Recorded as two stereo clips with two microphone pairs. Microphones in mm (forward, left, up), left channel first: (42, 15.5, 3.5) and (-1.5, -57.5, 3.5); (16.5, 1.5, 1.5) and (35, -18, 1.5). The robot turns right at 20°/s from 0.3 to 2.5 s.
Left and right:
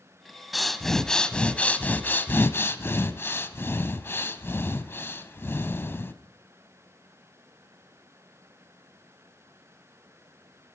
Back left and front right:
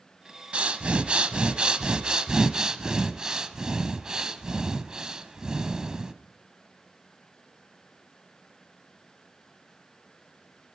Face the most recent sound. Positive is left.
turn(degrees=5)